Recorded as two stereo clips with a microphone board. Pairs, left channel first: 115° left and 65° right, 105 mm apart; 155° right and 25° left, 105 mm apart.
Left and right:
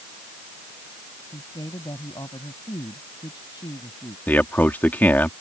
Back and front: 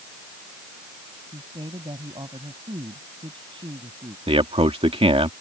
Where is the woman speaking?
65° left.